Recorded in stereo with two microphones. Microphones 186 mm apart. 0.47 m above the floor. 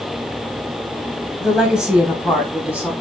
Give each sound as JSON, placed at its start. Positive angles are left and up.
{"t": 1.4, "sound": "a woman speaking", "side_deg": -5, "distance_m": 3.5}